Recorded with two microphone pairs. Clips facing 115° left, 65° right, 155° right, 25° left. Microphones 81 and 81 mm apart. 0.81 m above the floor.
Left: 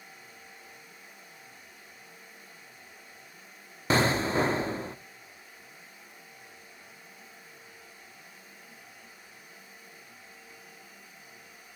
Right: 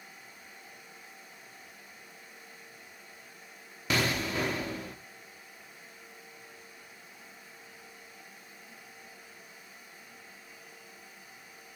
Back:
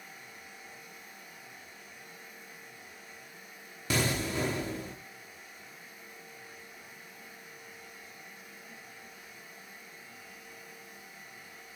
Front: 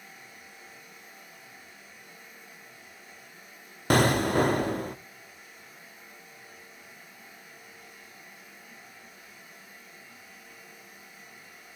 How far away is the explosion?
About 0.6 m.